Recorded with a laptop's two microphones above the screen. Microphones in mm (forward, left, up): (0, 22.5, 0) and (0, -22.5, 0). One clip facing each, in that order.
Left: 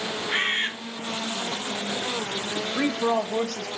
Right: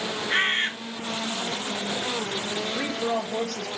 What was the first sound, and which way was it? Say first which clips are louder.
A bird: right 2 dB; 5° right (ahead or behind).